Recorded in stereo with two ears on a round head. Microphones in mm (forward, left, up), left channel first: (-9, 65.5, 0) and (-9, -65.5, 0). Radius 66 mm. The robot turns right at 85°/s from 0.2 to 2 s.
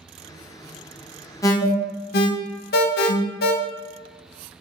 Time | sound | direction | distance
1.4 | an alarm | 20° left (ahead or behind) | 0.5 m